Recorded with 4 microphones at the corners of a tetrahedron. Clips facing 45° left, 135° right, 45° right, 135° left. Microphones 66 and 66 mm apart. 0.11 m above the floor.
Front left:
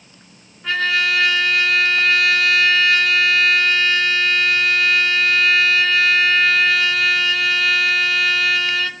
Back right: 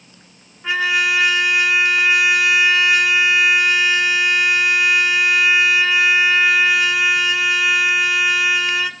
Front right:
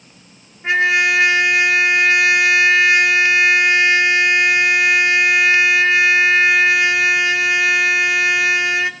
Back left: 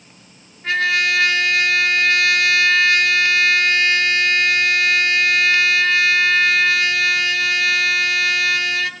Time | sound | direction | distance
0.6 | a trumpet | 75° right | 0.5 m